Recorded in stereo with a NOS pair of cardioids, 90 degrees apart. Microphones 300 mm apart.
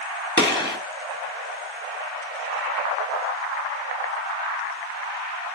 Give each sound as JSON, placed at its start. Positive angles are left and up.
{"t": 0.4, "sound": "a gunshot", "azimuth_deg": 15, "distance_m": 3.5}